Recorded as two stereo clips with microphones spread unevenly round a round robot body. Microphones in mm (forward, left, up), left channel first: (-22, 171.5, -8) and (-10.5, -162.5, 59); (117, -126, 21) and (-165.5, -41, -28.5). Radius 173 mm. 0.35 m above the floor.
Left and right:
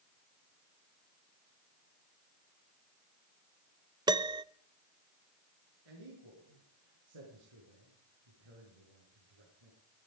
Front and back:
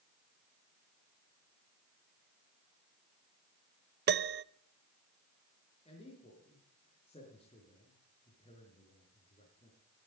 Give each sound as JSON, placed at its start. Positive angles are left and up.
{"t": 4.1, "sound": "a piano", "azimuth_deg": -175, "distance_m": 0.5}
{"t": 5.8, "sound": "a man speaking", "azimuth_deg": -90, "distance_m": 6.5}